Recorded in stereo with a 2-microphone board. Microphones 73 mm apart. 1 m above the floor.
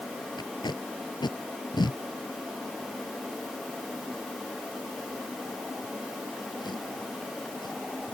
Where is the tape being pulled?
90° left.